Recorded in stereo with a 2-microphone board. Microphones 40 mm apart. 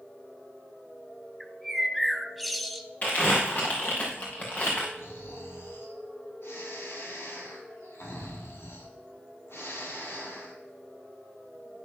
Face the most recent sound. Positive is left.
turn(degrees=80)